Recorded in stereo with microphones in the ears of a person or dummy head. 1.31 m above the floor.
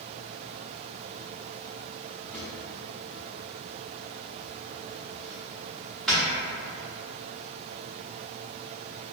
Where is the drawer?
5° left (ahead or behind), 1.0 m.